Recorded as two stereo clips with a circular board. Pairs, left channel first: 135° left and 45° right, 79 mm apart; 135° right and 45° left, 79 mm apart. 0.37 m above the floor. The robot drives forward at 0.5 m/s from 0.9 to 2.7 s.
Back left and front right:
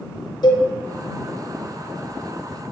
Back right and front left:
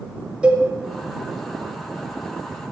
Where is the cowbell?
120° left, 1.3 m.